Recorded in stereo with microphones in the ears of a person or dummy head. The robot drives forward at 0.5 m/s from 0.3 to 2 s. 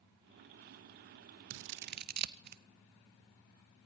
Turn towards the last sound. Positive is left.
turn(degrees=-50)  # may be behind; listen again after turning